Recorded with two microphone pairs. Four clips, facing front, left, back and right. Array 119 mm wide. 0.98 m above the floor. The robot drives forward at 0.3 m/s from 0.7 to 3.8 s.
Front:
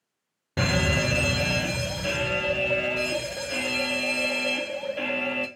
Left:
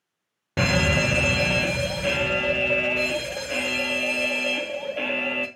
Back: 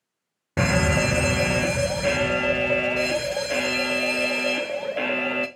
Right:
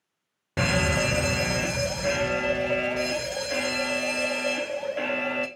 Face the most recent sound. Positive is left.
turn(degrees=170)